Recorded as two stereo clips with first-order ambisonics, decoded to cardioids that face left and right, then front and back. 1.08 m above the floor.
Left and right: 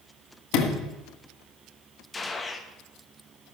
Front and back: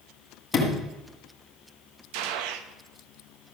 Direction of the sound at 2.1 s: 165° left.